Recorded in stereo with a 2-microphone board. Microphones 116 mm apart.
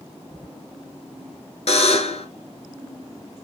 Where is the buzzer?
70° left (ahead or behind), 0.9 m.